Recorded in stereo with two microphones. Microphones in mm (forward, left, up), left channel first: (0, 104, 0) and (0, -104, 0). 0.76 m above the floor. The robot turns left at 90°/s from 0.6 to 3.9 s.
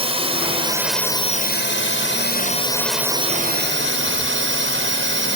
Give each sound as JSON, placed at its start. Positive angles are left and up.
{"t": 0.0, "sound": "a drone", "azimuth_deg": -150}